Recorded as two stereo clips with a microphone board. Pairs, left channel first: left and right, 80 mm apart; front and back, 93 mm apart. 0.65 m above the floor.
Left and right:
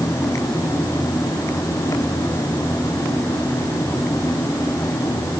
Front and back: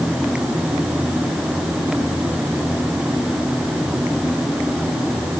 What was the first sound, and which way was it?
Only background noise.